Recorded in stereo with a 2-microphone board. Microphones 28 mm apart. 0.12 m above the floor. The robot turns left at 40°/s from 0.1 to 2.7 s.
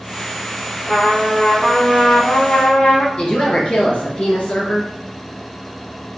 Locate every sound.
0.8 s a trumpet: 165° right, 2.5 m; by 3.1 s 120° left, 2.5 m
3.2 s a woman speaking: 40° left (ahead or behind), 1.9 m